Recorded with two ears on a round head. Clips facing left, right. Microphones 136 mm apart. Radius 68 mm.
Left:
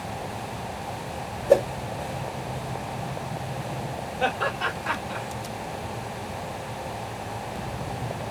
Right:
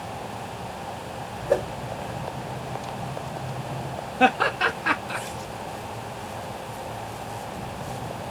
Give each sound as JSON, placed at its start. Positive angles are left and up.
{"t": 1.5, "sound": "a whoosh", "side_deg": 25, "distance_m": 1.5}
{"t": 4.2, "sound": "laughter", "side_deg": -75, "distance_m": 1.0}